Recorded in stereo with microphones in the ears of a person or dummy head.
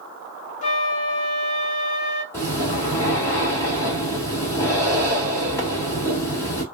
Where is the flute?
45° left (ahead or behind), 0.6 m.